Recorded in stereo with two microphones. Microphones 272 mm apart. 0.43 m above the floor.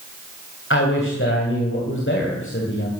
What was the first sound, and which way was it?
A man speaking, 45° left (ahead or behind).